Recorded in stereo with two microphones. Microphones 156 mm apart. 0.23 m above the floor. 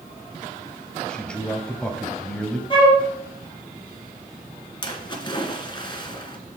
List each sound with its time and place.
1.1 s a man speaking: 5° left (ahead or behind), 1.1 m
2.7 s a flute: 30° left (ahead or behind), 3 m
4.8 s a splash: 30° left (ahead or behind), 1.3 m